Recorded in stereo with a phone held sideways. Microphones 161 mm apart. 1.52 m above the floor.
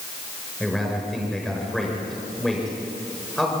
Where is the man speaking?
Centre (ahead or behind), 6 m.